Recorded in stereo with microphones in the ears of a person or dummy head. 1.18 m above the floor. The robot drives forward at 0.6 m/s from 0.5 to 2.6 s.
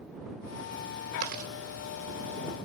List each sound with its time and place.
1.2 s chewing: 45° right (ahead or behind), 1.7 m; by 1.5 s 50° right (ahead or behind), 1.6 m